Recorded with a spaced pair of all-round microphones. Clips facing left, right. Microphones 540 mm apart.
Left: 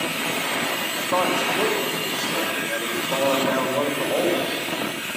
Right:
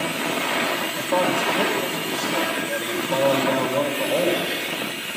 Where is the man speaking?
50° right (ahead or behind), 4 m.